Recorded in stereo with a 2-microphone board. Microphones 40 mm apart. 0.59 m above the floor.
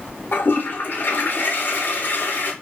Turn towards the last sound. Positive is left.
turn(degrees=55)  # may be behind; listen again after turning